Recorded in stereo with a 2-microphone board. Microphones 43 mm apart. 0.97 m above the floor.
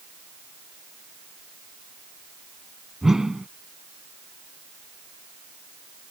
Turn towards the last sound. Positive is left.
turn(degrees=-10)  # may be behind; listen again after turning